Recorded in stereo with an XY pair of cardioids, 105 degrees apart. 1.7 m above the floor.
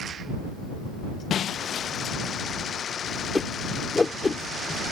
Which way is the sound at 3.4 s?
20° left.